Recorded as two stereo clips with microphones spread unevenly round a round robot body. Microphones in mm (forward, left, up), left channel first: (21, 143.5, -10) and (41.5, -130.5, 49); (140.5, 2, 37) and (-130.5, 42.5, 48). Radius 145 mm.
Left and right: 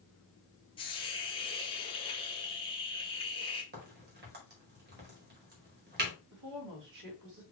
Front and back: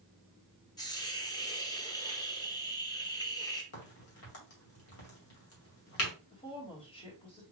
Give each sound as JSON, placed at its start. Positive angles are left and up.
{"t": 0.8, "sound": "a hiss", "azimuth_deg": 55, "distance_m": 1.2}
{"t": 3.7, "sound": "a crack", "azimuth_deg": -30, "distance_m": 2.0}
{"t": 6.3, "sound": "a woman speaking", "azimuth_deg": -75, "distance_m": 2.0}